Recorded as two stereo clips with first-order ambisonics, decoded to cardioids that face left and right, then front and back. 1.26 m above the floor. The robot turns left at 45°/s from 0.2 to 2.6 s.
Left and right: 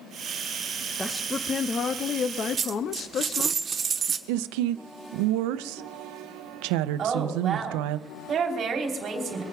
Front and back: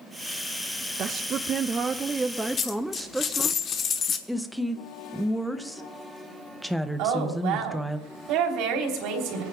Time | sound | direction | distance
1.0 | a woman speaking | 165° left | 0.5 m
2.6 | a dropped coin | 35° right | 0.9 m
4.3 | a woman speaking | 90° right | 0.8 m
7.0 | a woman speaking | 155° right | 3.5 m